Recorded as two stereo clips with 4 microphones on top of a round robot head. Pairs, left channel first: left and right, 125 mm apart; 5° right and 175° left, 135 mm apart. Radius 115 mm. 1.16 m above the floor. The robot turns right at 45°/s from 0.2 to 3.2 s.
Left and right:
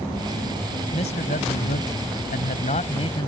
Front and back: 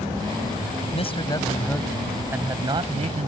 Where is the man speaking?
35° left; by 3.3 s 140° left.